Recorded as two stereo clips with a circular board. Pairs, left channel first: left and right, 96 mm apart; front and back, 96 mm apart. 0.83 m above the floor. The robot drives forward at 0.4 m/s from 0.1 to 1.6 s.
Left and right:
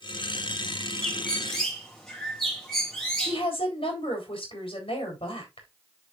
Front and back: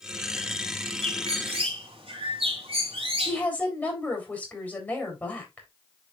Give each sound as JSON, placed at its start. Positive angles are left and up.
{"t": 1.0, "sound": "a bird", "azimuth_deg": 175, "distance_m": 2.5}
{"t": 3.2, "sound": "a woman speaking", "azimuth_deg": 70, "distance_m": 4.0}